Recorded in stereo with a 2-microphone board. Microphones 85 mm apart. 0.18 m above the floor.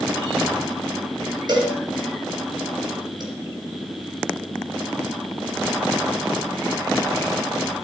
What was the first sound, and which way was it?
A cowbell, 60° right (ahead or behind).